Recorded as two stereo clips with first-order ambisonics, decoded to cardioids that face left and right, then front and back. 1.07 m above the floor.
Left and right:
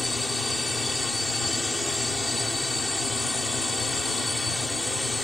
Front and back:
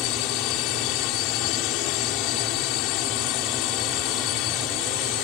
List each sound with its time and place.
0.0 s a drone: 5° left